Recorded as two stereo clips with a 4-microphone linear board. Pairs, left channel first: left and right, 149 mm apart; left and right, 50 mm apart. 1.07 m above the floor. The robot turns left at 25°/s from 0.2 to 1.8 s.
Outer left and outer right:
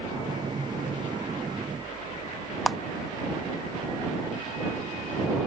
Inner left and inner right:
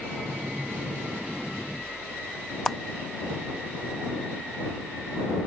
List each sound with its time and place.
2.7 s a clap: centre (ahead or behind)